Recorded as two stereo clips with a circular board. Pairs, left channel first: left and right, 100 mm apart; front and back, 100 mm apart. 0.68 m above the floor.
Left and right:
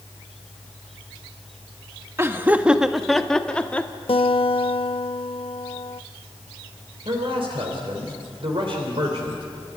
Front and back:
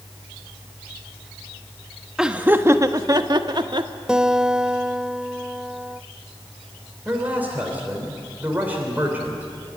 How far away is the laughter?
About 0.9 m.